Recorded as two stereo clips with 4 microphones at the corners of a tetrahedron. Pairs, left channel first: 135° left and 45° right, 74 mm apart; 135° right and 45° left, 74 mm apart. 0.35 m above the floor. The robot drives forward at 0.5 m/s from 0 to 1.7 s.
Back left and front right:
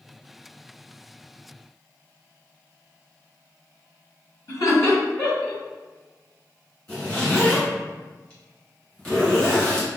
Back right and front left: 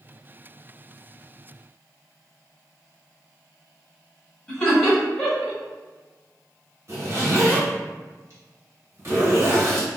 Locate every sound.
4.5 s laughter: 145° left, 1.8 m
6.9 s a zipper: 80° left, 1.9 m